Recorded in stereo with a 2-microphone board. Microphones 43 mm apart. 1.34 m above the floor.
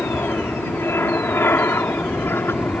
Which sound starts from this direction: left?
An aircraft, at 0.0 s.